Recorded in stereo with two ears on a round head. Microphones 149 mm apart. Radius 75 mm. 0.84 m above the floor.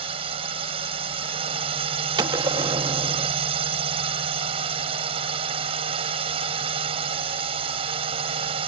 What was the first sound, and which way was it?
A drone, 30° right (ahead or behind).